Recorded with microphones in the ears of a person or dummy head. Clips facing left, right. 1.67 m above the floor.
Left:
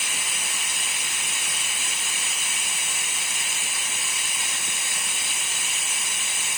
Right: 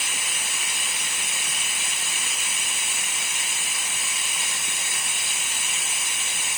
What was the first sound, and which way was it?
Only background noise.